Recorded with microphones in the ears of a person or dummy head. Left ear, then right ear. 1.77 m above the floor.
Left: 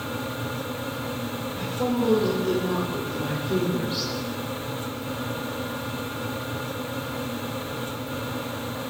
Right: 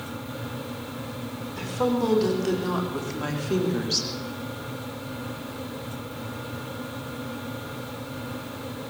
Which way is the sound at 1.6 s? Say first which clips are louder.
Right 2 dB; 60° right (ahead or behind).